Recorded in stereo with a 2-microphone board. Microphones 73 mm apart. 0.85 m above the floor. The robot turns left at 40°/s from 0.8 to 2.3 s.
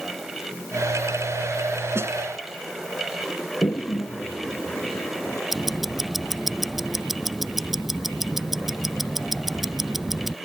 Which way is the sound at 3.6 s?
35° left (ahead or behind).